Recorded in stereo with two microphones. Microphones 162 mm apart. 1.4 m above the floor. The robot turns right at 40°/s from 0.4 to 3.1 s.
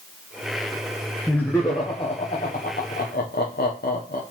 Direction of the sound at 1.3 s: 5° left (ahead or behind).